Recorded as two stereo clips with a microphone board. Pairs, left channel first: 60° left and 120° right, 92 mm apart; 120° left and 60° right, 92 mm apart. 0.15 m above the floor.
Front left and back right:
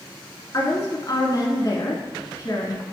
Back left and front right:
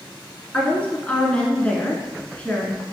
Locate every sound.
0.5 s a woman speaking: 50° left, 1.4 m